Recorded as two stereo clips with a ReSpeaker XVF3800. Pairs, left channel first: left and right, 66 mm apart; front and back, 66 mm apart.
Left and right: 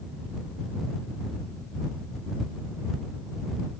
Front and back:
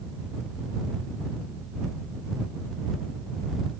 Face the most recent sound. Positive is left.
No sound to turn to.